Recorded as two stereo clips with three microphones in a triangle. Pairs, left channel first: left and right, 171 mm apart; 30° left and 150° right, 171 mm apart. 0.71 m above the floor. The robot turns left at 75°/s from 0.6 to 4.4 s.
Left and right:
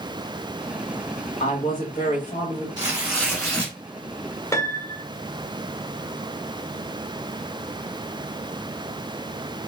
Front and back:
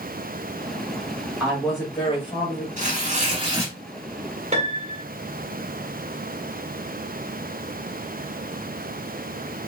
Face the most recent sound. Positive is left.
turn(degrees=165)